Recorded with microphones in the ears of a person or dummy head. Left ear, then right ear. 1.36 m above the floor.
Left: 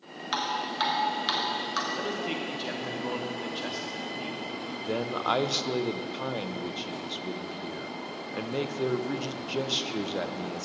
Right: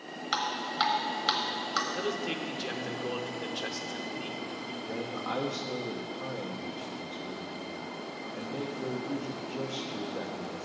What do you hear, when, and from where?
0.3 s dripping: 5° right (ahead or behind), 1.1 m
1.9 s a man speaking: centre (ahead or behind), 0.7 m
4.8 s a man speaking: 80° left, 0.6 m